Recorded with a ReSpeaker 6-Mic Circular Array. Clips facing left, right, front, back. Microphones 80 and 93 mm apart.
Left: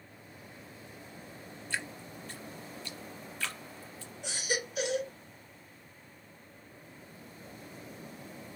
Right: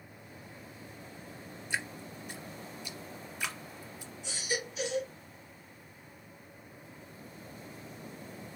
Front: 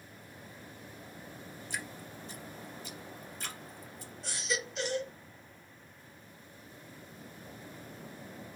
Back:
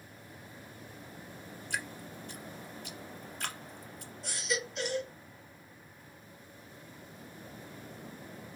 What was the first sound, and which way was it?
Dripping, 165° right.